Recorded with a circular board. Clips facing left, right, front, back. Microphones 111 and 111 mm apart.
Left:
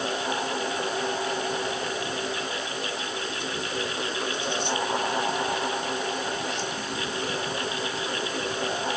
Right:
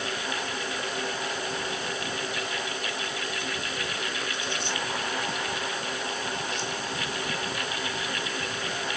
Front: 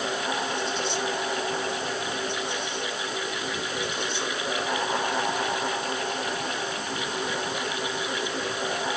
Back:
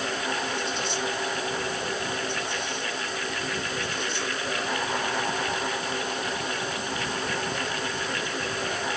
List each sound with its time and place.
Only background noise.